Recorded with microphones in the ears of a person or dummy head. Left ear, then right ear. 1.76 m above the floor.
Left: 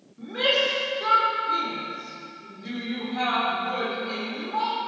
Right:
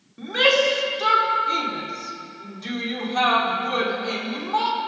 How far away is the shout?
About 5 m.